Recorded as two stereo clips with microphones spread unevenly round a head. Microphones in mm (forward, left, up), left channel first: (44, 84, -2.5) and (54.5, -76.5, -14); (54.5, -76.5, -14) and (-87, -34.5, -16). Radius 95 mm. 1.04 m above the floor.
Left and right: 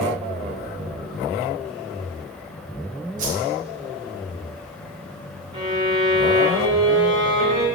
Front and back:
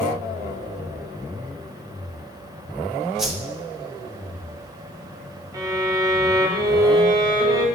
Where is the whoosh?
110° right, 0.5 m.